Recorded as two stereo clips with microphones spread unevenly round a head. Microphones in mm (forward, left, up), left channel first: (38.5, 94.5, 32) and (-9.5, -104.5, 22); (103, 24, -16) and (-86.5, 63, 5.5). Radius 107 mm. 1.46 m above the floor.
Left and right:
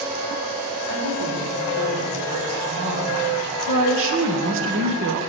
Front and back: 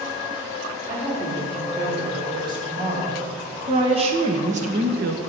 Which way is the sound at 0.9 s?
115° right.